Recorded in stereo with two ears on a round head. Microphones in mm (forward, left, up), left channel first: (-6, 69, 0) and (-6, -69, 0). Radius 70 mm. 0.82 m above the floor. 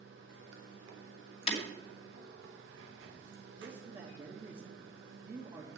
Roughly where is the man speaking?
Right.